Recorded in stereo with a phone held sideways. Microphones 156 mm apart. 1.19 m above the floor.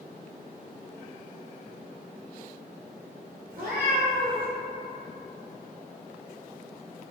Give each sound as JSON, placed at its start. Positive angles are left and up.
{"t": 3.5, "sound": "a cat meowing", "side_deg": -65, "distance_m": 0.8}